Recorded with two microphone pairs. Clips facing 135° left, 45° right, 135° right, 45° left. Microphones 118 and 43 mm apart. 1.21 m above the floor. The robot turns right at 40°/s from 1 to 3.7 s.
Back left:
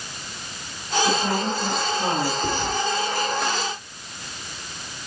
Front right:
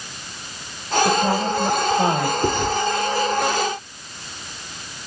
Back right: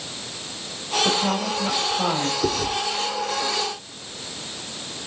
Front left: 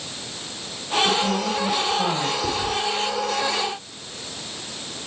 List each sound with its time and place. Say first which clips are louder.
1.0 s a woman speaking: front right 3 dB, even; 95° right, 6 m; by 2.3 s 45° right, 6 m
2.4 s chewing: front right 5 dB, back right 1 dB; 95° right, 2.5 m; by 2.7 s 85° right, 2.5 m